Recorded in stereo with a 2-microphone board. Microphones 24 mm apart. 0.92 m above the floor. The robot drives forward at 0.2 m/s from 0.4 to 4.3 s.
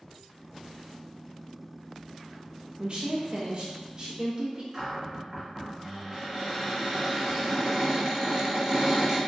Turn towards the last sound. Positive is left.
turn(degrees=-25)  # may be behind; listen again after turning